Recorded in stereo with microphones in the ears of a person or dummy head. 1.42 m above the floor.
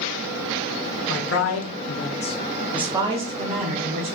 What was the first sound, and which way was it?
A man speaking, 80° left.